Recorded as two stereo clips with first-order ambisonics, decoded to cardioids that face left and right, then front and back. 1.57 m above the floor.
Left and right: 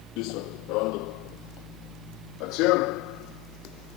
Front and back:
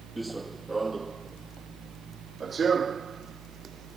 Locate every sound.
0.2 s running footsteps: 100° left; by 4.0 s 115° left